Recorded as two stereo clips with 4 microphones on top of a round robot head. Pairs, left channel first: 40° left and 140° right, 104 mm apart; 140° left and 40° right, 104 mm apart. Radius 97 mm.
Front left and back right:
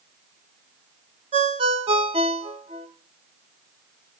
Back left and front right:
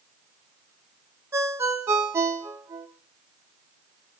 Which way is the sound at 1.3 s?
105° right.